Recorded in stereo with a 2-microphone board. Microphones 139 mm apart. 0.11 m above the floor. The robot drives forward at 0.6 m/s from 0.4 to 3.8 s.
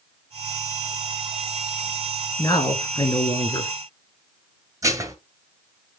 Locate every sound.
2.4 s a man speaking: 30° left (ahead or behind), 1.3 m; by 3.7 s 25° left (ahead or behind), 1.4 m
4.8 s dishes clattering: 20° right (ahead or behind), 1.3 m